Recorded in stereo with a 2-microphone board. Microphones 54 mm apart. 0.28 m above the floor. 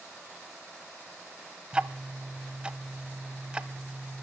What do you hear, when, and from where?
1.7 s ticking: 20° right (ahead or behind), 0.5 m